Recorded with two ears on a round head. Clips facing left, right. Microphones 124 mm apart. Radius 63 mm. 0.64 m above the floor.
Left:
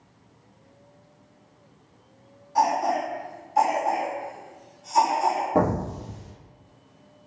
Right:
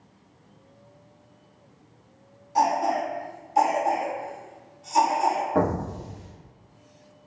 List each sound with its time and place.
2.5 s a cough: 25° right (ahead or behind), 1.1 m
5.5 s an explosion: 20° left (ahead or behind), 0.8 m